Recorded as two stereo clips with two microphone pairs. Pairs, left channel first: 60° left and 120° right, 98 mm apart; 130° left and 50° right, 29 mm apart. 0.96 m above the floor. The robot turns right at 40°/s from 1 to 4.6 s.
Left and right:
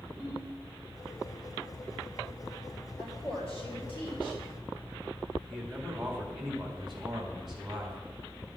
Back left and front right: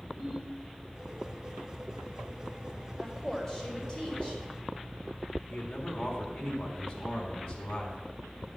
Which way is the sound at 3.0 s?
35° left.